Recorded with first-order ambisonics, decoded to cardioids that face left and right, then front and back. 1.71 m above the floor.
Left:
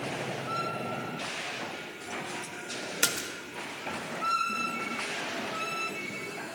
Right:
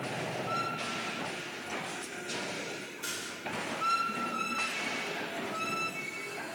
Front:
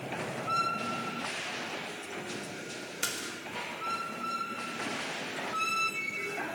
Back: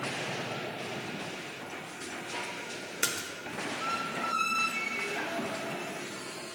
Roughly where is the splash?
Left.